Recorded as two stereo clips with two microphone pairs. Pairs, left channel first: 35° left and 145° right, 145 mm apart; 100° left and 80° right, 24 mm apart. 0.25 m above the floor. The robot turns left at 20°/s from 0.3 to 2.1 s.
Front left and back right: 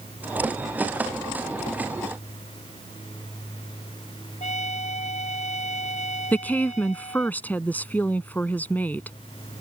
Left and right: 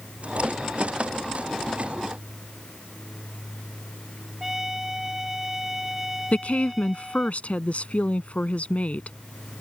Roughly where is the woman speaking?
Left.